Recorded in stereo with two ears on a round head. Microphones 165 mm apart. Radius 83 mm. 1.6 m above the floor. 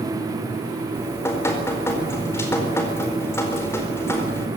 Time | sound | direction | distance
0.9 | dripping | 15° left (ahead or behind) | 4.5 m